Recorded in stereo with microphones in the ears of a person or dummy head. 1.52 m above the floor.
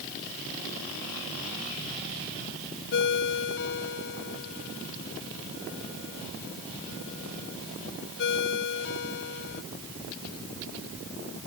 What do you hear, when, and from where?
2.9 s a ringtone: 65° left (ahead or behind)